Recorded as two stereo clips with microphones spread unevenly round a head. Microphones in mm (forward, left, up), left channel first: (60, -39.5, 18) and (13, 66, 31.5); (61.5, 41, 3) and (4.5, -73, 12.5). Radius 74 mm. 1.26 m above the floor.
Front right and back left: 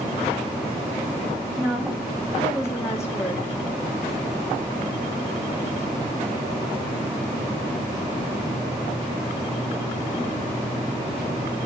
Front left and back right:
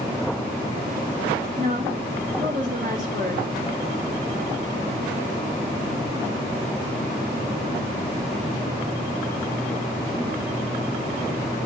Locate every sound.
1.6 s a woman speaking: 165° right, 1.8 m; by 3.4 s 160° right, 4 m